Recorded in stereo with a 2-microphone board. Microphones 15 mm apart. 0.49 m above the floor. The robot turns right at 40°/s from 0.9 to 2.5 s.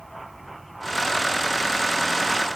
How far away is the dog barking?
No dog barking in this recording.